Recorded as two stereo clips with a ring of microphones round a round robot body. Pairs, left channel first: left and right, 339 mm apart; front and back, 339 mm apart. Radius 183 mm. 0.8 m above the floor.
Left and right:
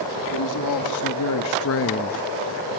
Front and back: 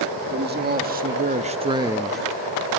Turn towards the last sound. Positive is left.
turn(degrees=85)